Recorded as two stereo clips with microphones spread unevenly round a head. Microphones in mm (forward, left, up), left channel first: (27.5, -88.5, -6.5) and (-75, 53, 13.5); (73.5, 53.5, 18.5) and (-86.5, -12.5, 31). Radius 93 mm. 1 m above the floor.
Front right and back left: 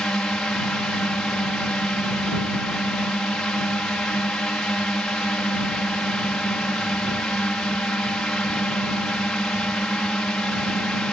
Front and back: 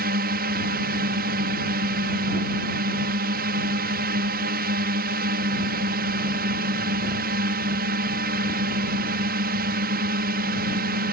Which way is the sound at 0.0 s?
140° right.